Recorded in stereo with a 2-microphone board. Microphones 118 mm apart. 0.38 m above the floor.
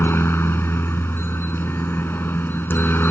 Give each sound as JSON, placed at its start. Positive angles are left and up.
{"t": 0.0, "sound": "a helicopter", "side_deg": 20}